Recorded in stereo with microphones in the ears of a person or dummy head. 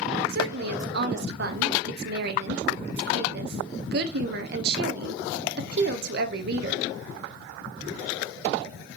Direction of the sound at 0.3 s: 65° right (ahead or behind).